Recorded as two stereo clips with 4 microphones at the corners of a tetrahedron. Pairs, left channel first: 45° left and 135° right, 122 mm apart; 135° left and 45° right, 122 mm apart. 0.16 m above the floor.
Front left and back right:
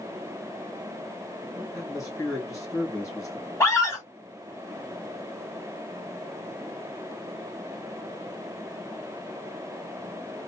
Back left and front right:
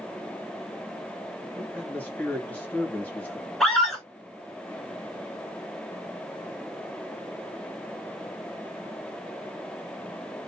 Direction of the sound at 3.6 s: 50° left.